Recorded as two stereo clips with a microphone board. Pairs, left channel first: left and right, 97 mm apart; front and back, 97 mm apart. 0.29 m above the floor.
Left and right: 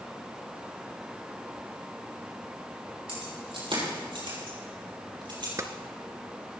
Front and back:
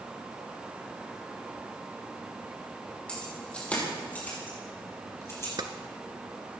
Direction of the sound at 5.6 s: 145° right.